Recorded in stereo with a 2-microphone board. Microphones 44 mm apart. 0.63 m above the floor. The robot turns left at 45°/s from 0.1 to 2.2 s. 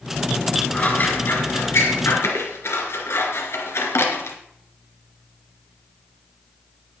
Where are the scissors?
30° left (ahead or behind), 2 m; by 4.4 s 80° left, 2 m.